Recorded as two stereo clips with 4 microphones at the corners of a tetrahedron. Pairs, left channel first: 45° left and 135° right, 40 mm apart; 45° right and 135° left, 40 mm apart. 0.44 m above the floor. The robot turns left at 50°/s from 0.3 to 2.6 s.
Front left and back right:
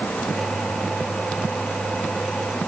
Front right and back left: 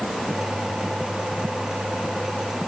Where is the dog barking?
I don't hear a dog barking.